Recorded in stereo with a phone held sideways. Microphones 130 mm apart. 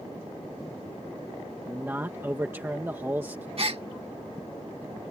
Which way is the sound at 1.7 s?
15° right (ahead or behind).